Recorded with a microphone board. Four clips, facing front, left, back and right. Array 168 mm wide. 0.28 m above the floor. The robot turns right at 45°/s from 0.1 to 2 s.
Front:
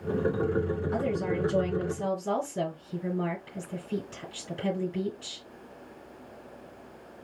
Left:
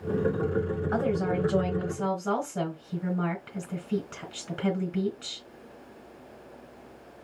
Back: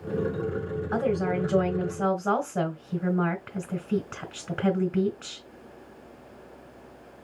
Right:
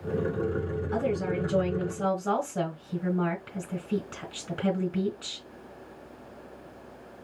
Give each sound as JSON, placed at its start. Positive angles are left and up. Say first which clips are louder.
{"t": 0.9, "sound": "a woman speaking", "louder": "left 1 dB, back 6 dB", "azimuth_deg": 140, "distance_m": 2.5}